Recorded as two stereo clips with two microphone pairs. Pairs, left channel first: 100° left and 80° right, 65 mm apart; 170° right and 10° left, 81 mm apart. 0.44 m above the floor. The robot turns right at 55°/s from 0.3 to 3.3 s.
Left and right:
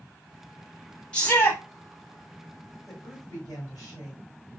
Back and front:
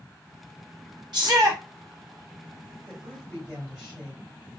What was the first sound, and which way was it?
A shout, 25° left.